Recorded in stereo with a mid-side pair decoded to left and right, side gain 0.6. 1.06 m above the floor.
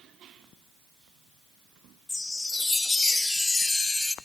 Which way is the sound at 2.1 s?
15° left.